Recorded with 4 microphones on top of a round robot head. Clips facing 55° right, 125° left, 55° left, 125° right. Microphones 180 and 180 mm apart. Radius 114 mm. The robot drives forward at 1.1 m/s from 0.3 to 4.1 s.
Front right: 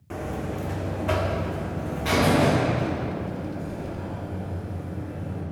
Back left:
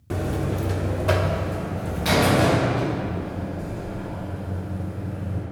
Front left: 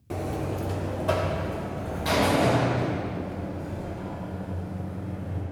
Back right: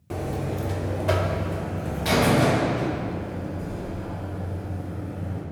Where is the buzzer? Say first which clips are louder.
Back left 4 dB, back right 1 dB; 145° left, 1.0 m; by 5.4 s 175° left, 5 m.